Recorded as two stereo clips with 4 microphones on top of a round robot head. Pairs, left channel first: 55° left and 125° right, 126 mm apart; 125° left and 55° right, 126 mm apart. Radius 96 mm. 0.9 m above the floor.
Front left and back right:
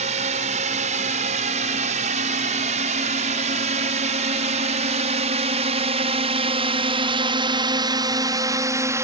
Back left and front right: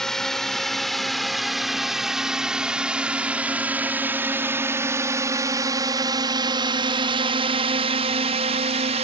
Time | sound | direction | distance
0.0 | a drone | 150° right | ?